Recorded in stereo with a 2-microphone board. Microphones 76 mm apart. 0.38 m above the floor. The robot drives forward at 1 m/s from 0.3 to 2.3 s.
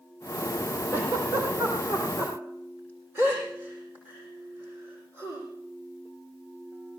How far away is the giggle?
About 7 m.